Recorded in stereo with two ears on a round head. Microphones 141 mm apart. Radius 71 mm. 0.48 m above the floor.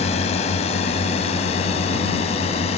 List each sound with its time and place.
0.0 s a drone: 40° left (ahead or behind)